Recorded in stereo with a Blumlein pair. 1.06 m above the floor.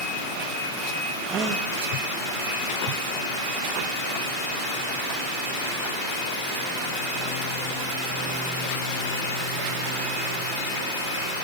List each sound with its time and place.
1.2 s a gasp: 30° right, 1.2 m